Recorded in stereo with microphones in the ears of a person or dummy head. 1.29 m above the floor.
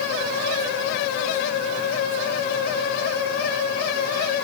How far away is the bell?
I don't hear a bell.